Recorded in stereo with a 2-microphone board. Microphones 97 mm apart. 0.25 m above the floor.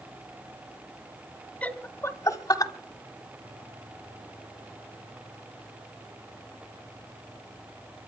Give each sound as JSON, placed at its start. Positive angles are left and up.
{"t": 1.6, "sound": "laughter", "side_deg": 15, "distance_m": 1.4}